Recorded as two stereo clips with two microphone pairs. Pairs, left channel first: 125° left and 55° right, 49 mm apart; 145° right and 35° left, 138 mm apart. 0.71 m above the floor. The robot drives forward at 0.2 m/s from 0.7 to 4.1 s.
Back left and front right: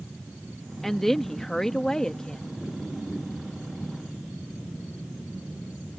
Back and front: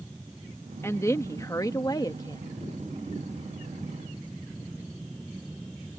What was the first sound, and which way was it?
A woman speaking, 160° right.